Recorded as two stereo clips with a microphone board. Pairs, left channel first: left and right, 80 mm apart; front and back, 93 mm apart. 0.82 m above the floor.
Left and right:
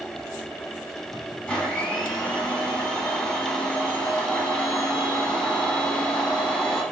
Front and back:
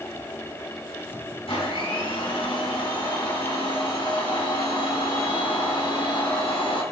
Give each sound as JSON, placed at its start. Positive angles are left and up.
{"t": 1.5, "sound": "a blender", "azimuth_deg": 15, "distance_m": 5.0}